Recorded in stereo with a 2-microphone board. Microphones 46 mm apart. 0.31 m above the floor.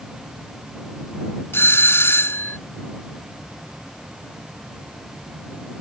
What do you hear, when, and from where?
1.5 s a doorbell: 55° left (ahead or behind)